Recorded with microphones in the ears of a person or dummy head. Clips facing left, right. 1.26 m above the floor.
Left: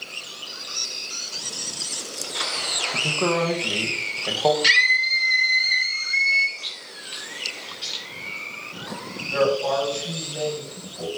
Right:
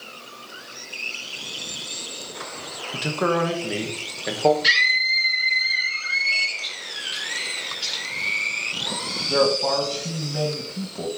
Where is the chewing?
15° right (ahead or behind), 2.5 m.